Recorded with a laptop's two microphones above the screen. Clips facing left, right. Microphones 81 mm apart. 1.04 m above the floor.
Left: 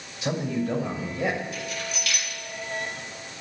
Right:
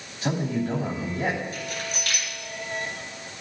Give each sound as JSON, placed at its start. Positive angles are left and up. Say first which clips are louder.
{"t": 0.2, "sound": "a man speaking", "louder": "right 1 dB", "side_deg": -40, "distance_m": 2.5}
{"t": 1.5, "sound": "keys jangling", "louder": "even", "side_deg": -30, "distance_m": 3.0}